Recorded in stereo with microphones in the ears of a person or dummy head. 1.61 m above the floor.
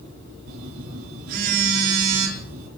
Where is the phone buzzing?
65° right (ahead or behind), 3 m.